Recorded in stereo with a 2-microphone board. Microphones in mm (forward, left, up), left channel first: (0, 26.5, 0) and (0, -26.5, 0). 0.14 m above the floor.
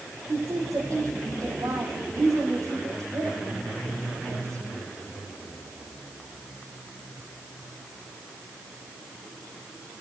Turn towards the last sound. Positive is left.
turn(degrees=-75)  # may be behind; listen again after turning